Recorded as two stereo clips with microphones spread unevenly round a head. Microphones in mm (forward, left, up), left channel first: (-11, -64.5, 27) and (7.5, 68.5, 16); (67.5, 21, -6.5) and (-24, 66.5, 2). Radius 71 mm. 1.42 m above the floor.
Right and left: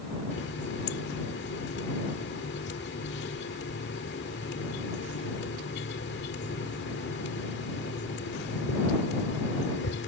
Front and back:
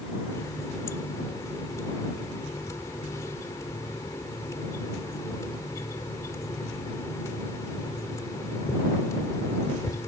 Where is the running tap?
95° right.